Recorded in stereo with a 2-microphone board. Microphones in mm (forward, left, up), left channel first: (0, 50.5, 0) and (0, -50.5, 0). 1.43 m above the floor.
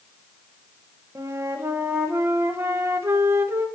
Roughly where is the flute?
Right.